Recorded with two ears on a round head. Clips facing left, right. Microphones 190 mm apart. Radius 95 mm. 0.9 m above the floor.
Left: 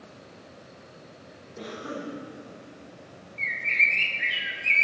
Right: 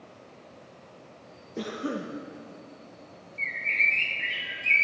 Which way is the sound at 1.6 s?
55° right (ahead or behind).